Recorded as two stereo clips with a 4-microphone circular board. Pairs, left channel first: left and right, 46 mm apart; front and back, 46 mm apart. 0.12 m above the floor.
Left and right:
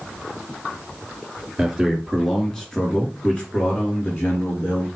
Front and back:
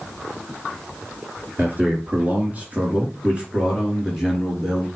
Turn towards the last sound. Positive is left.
turn(degrees=100)